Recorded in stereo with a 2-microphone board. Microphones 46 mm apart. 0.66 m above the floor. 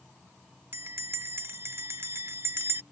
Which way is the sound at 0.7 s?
65° right (ahead or behind).